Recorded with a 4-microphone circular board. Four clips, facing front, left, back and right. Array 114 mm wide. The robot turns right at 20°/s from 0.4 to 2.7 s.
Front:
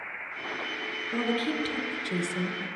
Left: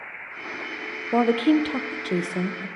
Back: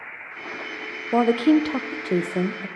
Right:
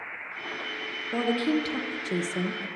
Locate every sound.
1.1 s a woman speaking: 145° left, 0.7 m; by 2.7 s 175° left, 0.7 m